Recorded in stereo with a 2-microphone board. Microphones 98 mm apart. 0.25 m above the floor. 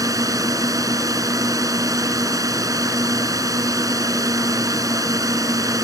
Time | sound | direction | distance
0.0 | a drone | 35° right (ahead or behind) | ?